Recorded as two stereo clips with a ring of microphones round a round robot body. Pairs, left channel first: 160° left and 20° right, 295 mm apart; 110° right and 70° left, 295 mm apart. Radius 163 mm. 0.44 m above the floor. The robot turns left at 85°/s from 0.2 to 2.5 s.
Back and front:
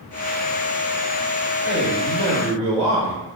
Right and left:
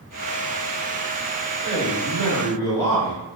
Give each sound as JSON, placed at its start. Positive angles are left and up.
{"t": 1.6, "sound": "a man speaking", "azimuth_deg": 120, "distance_m": 1.7}